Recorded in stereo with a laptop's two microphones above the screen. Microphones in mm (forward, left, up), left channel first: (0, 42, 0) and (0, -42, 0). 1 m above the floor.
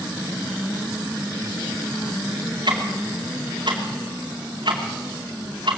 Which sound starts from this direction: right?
Ticking, at 2.7 s.